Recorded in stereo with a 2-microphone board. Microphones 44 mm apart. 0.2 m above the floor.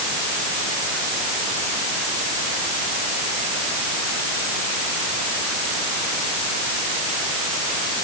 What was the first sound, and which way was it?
Only background noise.